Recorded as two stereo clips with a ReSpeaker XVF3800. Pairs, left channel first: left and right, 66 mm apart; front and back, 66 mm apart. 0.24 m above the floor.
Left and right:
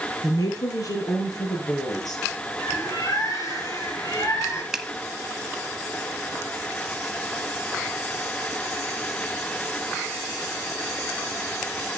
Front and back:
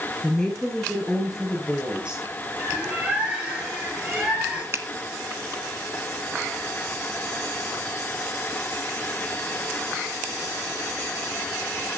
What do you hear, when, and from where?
0.2 s a woman speaking: 80° left, 4 m; by 2.2 s 105° left, 6.5 m
2.6 s a bird: 110° left, 4.5 m
4.7 s a finger snap: 165° right, 1.1 m